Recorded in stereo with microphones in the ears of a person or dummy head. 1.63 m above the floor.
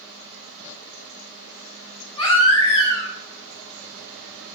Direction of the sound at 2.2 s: 30° left (ahead or behind).